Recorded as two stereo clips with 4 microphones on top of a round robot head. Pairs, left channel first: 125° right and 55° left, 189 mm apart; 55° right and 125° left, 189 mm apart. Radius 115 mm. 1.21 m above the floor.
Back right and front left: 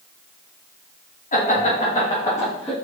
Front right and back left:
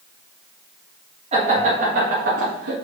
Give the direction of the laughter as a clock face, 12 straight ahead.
6 o'clock.